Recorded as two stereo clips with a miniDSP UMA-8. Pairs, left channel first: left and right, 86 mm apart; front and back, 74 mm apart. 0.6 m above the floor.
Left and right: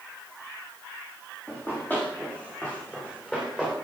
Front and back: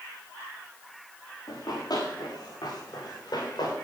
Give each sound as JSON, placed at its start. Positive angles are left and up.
{"t": 1.5, "sound": "running footsteps", "azimuth_deg": 20, "distance_m": 5.5}